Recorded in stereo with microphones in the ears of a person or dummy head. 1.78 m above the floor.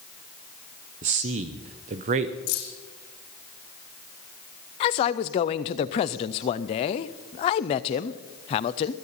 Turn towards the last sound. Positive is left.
turn(degrees=25)  # may be behind; listen again after turning